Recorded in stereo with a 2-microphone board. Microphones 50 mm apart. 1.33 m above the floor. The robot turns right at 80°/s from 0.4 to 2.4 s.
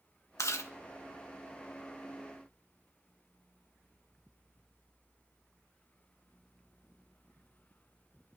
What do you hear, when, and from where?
0.4 s chewing: 85° left, 1.2 m; by 0.7 s 70° left (ahead or behind), 1.2 m